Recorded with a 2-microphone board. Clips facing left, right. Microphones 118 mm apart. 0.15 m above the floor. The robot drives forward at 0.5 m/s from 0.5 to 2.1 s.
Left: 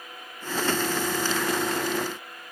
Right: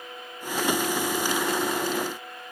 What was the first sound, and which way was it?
Only background noise.